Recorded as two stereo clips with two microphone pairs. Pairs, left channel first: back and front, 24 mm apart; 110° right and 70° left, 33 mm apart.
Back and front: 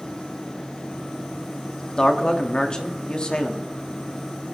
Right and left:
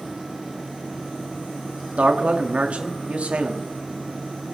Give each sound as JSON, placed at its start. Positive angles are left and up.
{"t": 2.0, "sound": "a man speaking", "azimuth_deg": 125, "distance_m": 1.4}